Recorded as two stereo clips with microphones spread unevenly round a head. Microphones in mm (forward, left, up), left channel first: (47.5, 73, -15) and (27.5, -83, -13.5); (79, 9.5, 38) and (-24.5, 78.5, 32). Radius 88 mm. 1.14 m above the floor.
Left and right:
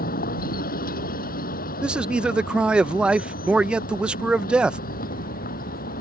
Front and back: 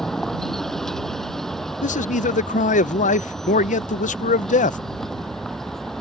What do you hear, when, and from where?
0.0 s a vehicle: 55° left
1.8 s a man speaking: 15° right